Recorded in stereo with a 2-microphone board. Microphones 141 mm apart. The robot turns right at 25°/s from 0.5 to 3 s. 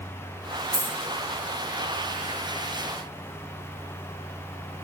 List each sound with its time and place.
0.7 s a dropped coin: 25° left (ahead or behind), 2 m; by 0.9 s 20° left (ahead or behind), 2 m